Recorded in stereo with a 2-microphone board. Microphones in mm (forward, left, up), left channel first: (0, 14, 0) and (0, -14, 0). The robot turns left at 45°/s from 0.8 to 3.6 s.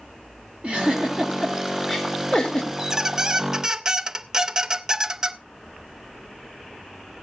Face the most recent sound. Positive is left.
turn(degrees=-20)  # may be behind; listen again after turning